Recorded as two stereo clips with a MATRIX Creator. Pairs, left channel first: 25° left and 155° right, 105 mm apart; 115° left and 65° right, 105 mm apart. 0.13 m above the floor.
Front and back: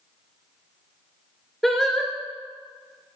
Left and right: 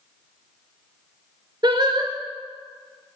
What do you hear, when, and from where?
1.6 s singing: 65° right, 1.0 m